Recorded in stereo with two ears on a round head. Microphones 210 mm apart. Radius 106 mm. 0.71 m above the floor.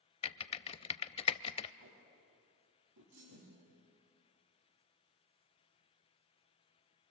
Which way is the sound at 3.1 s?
60° right (ahead or behind).